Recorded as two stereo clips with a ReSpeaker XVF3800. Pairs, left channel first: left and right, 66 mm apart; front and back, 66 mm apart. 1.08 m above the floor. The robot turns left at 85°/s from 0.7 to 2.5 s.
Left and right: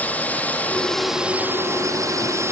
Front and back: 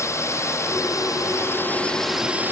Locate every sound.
0.0 s a drone: 30° left; by 2.5 s 125° right